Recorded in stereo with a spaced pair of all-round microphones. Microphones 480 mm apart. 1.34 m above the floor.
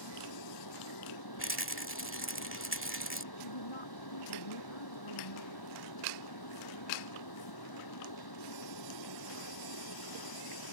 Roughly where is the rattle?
Right.